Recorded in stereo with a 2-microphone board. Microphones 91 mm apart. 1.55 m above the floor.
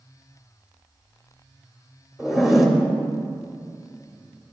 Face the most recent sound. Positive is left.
turn(degrees=-5)  # may be behind; listen again after turning